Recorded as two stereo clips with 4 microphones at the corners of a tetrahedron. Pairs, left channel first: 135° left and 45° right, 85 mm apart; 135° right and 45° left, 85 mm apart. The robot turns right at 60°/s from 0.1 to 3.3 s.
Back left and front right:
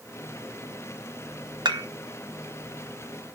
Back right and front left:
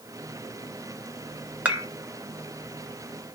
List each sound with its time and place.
1.6 s dishes clattering: 30° right, 1.2 m; by 1.9 s 15° right, 1.2 m